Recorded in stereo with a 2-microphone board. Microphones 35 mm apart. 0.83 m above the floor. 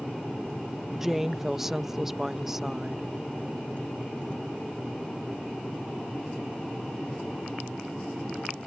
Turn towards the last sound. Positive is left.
turn(degrees=-10)  # may be behind; listen again after turning